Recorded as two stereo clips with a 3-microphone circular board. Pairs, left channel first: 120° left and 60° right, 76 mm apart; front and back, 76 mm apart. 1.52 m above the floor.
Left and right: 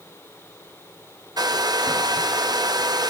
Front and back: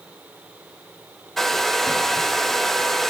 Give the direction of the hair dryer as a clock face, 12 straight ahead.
3 o'clock.